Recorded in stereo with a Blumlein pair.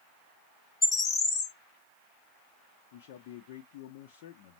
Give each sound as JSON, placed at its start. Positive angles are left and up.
{"t": 0.8, "sound": "a bird", "azimuth_deg": 20, "distance_m": 0.8}
{"t": 2.9, "sound": "a man speaking", "azimuth_deg": 50, "distance_m": 0.8}